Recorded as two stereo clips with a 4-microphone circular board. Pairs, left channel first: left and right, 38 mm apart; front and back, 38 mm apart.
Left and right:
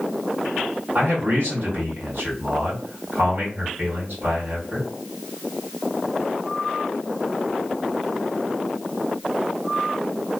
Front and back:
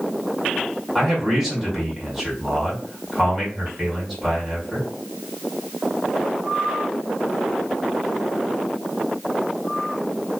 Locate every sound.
0.9 s a man speaking: 95° right, 1.9 m